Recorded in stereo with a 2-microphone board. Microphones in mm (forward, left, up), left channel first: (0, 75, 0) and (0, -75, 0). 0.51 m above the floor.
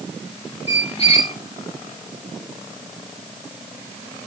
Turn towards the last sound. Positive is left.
turn(degrees=40)  # may be behind; listen again after turning